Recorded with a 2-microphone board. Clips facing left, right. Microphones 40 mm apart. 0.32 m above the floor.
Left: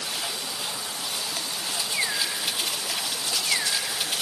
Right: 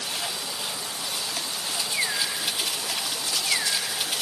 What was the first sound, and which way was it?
Only background noise.